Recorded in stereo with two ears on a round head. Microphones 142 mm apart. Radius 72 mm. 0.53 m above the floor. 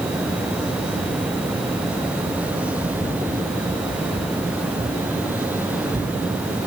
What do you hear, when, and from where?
Only background noise.